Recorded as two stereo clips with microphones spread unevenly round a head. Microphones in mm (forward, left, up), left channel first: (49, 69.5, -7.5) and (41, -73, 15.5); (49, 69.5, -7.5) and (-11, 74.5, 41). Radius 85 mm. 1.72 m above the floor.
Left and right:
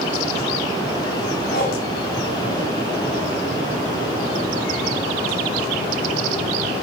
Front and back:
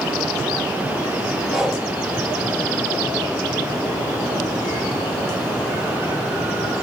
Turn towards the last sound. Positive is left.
turn(degrees=120)